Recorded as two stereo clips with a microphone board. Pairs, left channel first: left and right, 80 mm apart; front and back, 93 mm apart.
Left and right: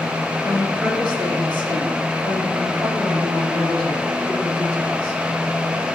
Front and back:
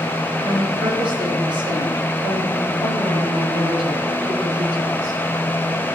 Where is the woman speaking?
160° right, 5 m; by 5.2 s 145° right, 8.5 m.